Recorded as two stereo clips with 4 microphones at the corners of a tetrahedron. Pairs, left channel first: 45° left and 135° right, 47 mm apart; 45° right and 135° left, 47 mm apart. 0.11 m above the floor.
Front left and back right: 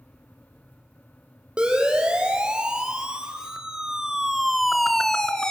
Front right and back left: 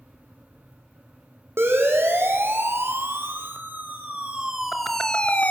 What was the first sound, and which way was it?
A siren, 155° left.